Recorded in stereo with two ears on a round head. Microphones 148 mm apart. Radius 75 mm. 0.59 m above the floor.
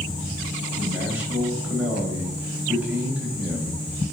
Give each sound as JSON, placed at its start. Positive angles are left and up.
{"t": 0.8, "sound": "a man speaking", "side_deg": -10, "distance_m": 2.5}